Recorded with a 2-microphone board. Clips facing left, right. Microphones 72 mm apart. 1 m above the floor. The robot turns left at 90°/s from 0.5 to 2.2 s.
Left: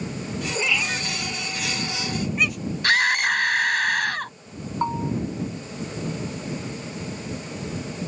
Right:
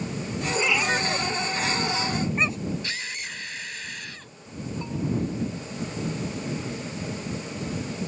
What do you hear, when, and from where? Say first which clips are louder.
0.6 s a cat meowing: right 3 dB; centre (ahead or behind); by 2.6 s 30° right (ahead or behind)
2.8 s a scream: left 14 dB; 70° left (ahead or behind)
4.8 s a bell: left 6 dB; 60° left (ahead or behind)